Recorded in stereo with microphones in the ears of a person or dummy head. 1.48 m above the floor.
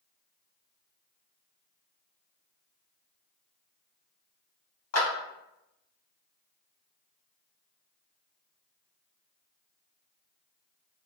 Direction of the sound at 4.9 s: 90° left.